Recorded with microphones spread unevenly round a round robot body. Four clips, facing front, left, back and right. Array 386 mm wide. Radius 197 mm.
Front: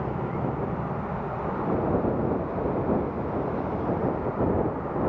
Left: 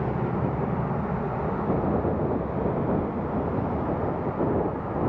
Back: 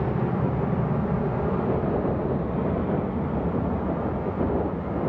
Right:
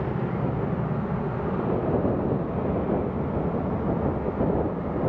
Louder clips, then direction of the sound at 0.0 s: Left 1 dB, back 3 dB; straight behind.